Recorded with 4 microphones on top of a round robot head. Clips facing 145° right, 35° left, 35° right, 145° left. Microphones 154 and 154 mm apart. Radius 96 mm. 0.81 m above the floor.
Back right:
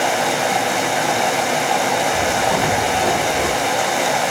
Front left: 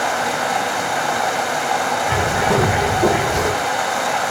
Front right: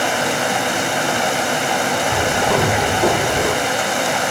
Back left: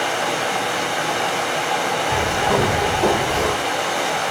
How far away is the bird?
About 1.7 m.